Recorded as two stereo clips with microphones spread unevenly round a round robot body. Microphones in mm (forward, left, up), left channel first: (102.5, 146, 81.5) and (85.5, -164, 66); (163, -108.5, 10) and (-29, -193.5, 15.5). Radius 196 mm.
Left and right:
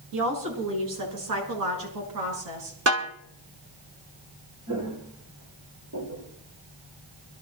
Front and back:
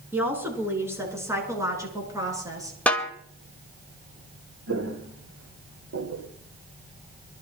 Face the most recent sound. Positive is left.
turn(degrees=-150)